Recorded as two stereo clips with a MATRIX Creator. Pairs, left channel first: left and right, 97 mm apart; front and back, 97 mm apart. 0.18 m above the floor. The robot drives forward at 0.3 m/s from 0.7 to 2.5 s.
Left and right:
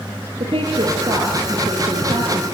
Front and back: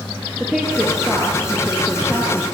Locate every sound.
0.4 s a woman speaking: 95° right, 3.5 m; by 2.5 s 105° right, 3.5 m